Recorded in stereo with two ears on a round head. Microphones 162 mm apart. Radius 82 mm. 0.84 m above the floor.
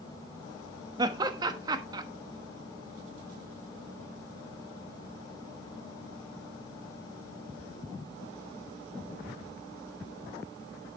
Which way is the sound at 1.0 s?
20° right (ahead or behind).